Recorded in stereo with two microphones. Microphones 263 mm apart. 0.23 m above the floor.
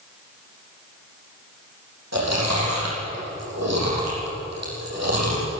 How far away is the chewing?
About 8 m.